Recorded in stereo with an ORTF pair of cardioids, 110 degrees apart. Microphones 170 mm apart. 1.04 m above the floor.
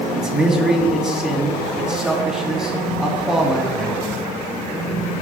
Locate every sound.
0.2 s a man speaking: 5° right, 2 m